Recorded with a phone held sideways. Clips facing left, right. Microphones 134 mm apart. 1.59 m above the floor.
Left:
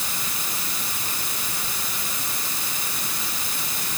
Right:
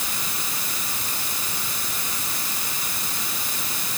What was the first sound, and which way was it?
Only background noise.